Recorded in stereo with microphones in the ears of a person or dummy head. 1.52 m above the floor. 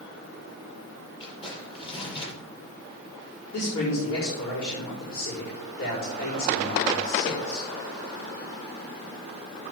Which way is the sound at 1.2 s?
30° left (ahead or behind).